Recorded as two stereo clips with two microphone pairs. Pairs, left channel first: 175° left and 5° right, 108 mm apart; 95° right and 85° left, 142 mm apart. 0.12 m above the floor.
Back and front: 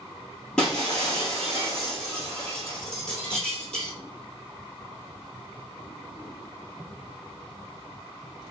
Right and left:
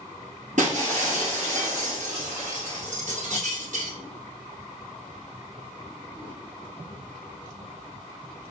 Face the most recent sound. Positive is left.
turn(degrees=95)